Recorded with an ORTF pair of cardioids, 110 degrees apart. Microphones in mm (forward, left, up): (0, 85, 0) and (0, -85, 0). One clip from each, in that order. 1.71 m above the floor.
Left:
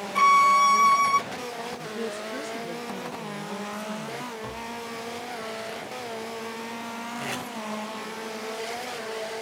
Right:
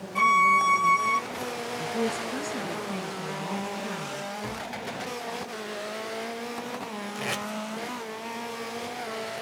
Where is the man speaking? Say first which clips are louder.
Right 4 dB; 35° right, 3 m.